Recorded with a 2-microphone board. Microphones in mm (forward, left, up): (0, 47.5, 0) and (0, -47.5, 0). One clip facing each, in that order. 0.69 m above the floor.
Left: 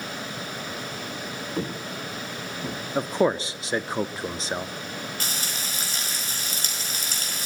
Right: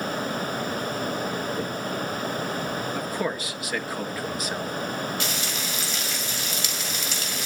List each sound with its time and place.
1.6 s footsteps: 30° left (ahead or behind), 2.5 m; by 2.8 s 50° left (ahead or behind), 2.5 m
3.0 s a man speaking: 25° left (ahead or behind), 0.8 m
5.2 s frying: 40° left (ahead or behind), 5 m